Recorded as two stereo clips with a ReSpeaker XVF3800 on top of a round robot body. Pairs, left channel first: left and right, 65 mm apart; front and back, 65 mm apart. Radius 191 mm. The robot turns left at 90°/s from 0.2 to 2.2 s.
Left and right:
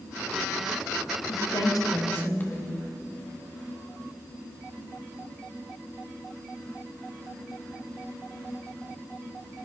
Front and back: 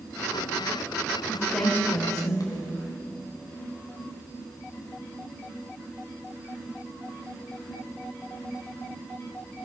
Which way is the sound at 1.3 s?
110° left.